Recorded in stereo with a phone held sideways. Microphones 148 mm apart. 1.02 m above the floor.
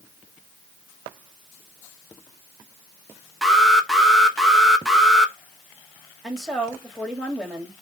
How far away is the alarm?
About 1.0 m.